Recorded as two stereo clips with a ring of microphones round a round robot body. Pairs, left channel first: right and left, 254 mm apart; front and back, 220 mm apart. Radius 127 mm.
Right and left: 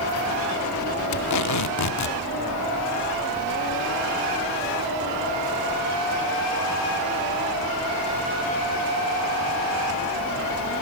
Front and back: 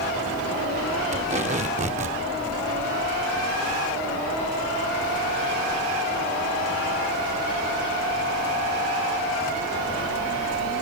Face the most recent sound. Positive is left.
turn(degrees=-115)